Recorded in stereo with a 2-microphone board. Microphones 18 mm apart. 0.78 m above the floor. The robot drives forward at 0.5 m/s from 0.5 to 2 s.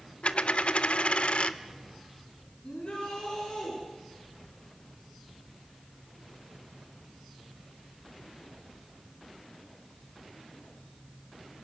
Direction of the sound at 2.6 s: 60° left (ahead or behind).